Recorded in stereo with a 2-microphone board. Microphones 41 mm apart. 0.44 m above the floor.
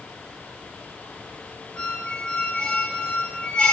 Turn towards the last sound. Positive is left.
turn(degrees=30)  # may be behind; listen again after turning